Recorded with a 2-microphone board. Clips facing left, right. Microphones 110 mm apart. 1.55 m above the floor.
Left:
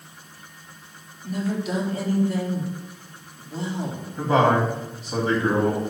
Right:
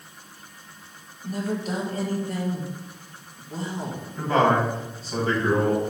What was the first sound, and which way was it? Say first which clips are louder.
A woman speaking: left 1 dB; 45° right (ahead or behind).